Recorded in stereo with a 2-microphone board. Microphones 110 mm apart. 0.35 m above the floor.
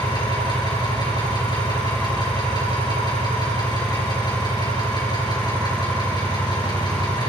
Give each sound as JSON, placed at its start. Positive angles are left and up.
{"t": 0.0, "sound": "an engine running", "side_deg": 40, "distance_m": 3.5}